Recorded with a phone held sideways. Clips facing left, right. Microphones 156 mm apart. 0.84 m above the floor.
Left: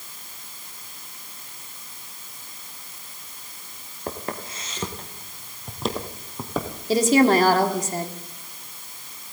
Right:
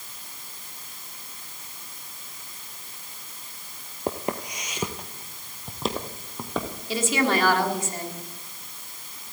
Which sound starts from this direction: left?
A woman speaking, at 6.9 s.